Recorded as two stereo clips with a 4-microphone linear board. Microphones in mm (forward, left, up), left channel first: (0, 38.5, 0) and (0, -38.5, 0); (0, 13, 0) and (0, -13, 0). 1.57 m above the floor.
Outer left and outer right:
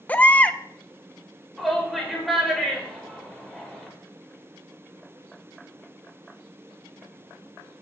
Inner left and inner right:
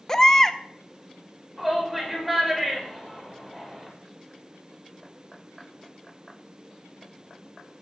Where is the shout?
Centre (ahead or behind), 5.5 m.